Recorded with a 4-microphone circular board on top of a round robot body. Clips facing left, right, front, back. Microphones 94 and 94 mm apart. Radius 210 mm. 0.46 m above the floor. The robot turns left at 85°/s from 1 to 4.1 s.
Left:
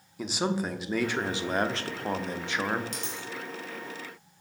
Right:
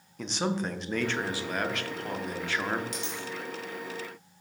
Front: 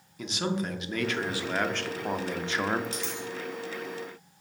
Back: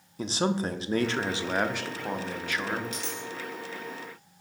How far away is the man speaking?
About 0.7 m.